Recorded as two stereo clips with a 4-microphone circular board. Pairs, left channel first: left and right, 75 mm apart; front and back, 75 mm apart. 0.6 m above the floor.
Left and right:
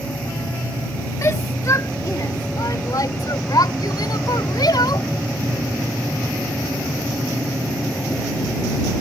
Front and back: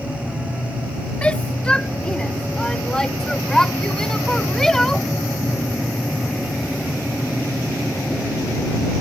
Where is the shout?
65° left; by 5.1 s 85° left.